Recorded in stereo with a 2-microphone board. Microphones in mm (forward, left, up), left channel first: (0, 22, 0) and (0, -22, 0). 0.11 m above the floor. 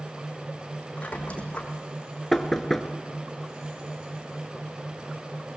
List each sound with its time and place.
1.0 s a squeak: 30° left (ahead or behind), 2 m
2.3 s knocking: 5° left (ahead or behind), 0.9 m